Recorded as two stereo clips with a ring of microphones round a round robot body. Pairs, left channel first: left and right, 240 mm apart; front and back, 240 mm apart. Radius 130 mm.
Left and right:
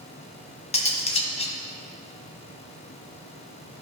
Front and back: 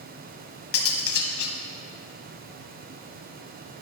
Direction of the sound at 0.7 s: 25° left.